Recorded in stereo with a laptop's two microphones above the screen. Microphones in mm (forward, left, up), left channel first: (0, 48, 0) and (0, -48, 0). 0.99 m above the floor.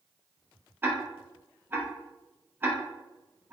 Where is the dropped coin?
I don't hear a dropped coin.